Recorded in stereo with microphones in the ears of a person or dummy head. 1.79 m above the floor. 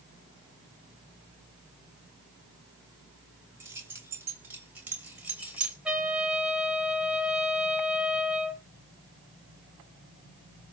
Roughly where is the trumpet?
Centre.